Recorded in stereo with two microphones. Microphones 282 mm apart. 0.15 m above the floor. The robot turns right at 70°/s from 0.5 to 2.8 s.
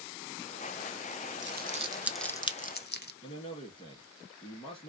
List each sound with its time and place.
1.4 s crumpling: 40° right (ahead or behind), 0.5 m; by 3.1 s 35° left (ahead or behind), 0.5 m
3.2 s a man speaking: 20° left (ahead or behind), 1.8 m